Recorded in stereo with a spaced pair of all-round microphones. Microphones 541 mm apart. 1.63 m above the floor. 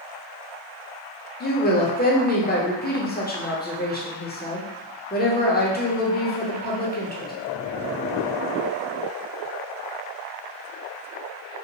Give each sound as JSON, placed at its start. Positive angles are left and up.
{"t": 1.4, "sound": "a woman speaking", "side_deg": 20, "distance_m": 0.6}